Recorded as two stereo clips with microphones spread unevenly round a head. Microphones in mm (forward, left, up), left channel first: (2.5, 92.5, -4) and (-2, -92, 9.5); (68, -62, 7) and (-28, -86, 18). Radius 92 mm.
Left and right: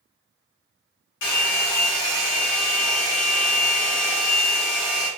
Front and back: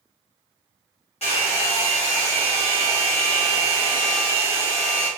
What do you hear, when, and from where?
1.2 s a hair dryer: 60° left, 1.0 m